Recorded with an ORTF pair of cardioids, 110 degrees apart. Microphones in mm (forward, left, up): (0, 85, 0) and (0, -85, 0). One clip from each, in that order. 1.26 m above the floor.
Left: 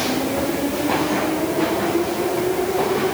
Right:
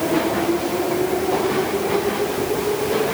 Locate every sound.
Only background noise.